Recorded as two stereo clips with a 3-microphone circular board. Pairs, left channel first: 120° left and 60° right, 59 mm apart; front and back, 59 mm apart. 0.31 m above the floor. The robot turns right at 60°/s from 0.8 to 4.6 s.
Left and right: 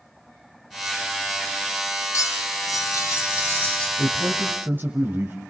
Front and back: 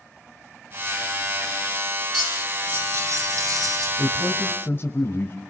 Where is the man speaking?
60° right, 1.4 m; by 5.4 s 25° right, 1.4 m.